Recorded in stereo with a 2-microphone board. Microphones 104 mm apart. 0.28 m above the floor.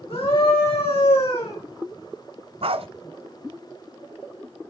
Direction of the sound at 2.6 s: 65° right (ahead or behind).